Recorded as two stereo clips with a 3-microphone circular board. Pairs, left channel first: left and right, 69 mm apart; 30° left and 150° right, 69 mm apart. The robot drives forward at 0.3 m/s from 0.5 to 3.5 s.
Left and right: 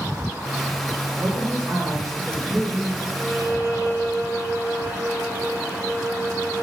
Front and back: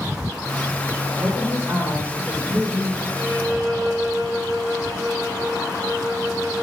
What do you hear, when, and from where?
1.2 s a woman speaking: 140° right, 2.5 m; by 3.0 s 150° right, 3 m
3.1 s a violin: 145° right, 2 m